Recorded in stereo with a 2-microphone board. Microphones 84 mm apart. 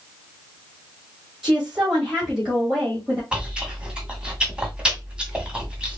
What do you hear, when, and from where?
1.4 s a woman speaking: 5° right (ahead or behind), 1.9 m
3.3 s chewing: 15° right (ahead or behind), 1.4 m